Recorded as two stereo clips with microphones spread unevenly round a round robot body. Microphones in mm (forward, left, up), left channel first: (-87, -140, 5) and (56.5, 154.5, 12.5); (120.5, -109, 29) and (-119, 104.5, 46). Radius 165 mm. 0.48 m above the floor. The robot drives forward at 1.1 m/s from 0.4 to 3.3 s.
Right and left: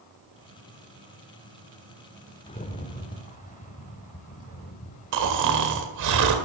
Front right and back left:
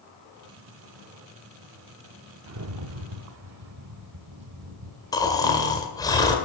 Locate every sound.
2.5 s a rattle: 175° left, 0.7 m; by 6.1 s straight behind, 1.5 m
5.1 s snoring: 35° left, 1.9 m